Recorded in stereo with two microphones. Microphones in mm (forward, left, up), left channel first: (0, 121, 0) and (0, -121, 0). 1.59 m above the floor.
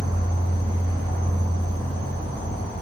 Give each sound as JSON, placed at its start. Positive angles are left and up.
{"t": 0.0, "sound": "an insect", "side_deg": -20, "distance_m": 1.9}